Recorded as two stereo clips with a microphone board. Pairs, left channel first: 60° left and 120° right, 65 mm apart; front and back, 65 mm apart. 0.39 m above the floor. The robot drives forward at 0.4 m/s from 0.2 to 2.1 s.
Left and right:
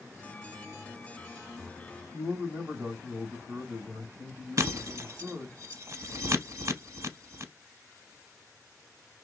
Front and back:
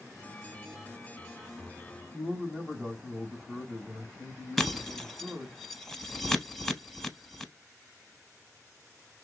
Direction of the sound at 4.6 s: 90° right.